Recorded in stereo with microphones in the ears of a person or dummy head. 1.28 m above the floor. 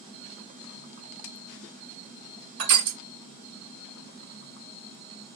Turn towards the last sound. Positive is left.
turn(degrees=-60)  # may be behind; listen again after turning